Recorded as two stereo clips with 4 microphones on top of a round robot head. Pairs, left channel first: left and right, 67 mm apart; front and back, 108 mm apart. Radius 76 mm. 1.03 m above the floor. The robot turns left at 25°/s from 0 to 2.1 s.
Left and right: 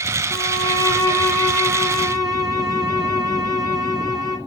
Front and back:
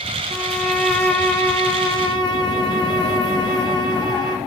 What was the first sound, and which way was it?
A violin, 90° left.